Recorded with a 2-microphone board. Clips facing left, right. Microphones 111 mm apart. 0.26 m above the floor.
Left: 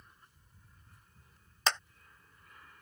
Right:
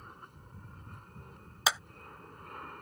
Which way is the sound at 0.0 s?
60° right (ahead or behind).